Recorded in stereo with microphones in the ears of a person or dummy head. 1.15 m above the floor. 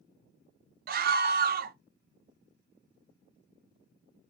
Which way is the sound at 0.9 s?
50° right (ahead or behind).